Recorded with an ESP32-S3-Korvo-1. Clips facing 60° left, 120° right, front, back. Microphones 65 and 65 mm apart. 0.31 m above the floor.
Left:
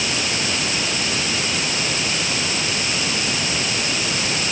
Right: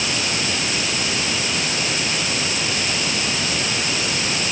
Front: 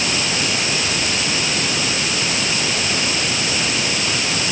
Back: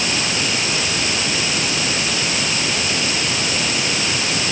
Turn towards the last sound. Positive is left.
No sound to turn to.